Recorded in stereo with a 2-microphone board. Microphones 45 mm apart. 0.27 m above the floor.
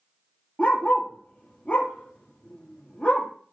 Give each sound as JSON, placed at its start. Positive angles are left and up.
{"t": 0.6, "sound": "a dog barking", "side_deg": 35, "distance_m": 3.0}